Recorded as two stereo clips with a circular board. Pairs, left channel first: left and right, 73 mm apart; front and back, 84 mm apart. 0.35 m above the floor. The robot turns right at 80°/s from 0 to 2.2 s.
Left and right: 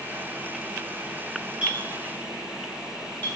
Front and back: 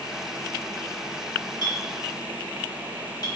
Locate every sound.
1.6 s a clink: 20° right, 1.1 m; by 3.3 s 25° left, 1.1 m